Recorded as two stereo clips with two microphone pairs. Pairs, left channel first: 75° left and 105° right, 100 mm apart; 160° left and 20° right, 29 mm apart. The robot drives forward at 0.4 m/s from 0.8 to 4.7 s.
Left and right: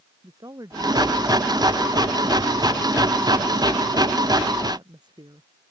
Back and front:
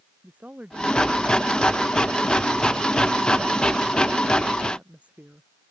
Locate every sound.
0.2 s a woman speaking: 55° right; by 5.5 s 60° right